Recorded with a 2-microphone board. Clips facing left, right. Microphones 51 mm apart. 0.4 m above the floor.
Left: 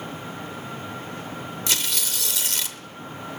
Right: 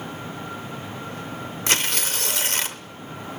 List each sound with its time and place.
1.7 s tearing paper: 40° right (ahead or behind), 0.7 m